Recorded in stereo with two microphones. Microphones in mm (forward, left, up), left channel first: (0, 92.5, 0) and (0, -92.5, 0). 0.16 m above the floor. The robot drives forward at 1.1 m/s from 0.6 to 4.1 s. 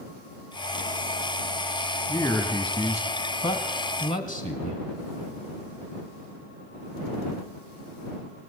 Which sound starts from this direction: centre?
A man speaking, at 2.1 s.